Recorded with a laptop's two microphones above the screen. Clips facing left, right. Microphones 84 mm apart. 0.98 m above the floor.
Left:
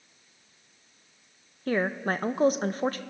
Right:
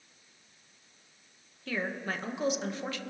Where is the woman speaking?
40° left (ahead or behind), 0.5 m.